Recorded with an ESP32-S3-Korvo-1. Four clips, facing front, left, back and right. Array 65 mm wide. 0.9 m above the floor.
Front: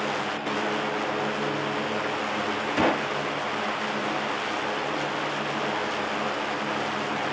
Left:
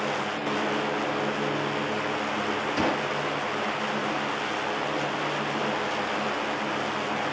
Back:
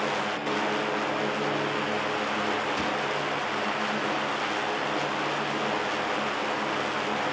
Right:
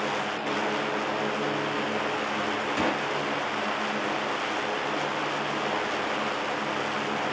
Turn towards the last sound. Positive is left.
turn(degrees=5)